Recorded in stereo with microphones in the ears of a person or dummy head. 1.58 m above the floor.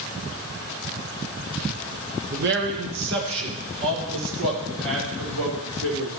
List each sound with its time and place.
2.3 s a man speaking: 55° right (ahead or behind), 1.0 m; by 6.1 s 85° right, 3 m